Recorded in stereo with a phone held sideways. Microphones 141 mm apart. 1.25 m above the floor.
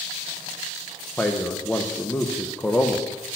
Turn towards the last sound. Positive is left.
turn(degrees=10)  # may be behind; listen again after turning